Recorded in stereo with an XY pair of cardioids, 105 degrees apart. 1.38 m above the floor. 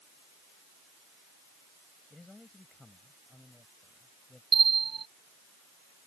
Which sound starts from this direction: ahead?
A man speaking, at 2.1 s.